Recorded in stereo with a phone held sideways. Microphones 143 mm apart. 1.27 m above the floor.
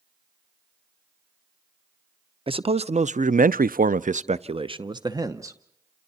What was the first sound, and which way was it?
A man speaking, 35° right (ahead or behind).